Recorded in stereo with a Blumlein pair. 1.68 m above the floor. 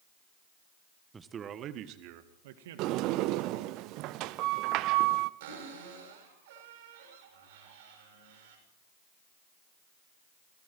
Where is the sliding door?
40° right, 0.8 m.